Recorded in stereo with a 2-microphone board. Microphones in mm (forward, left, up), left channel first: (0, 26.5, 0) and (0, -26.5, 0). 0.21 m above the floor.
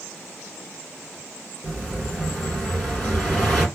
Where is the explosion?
10° left (ahead or behind), 1.7 m.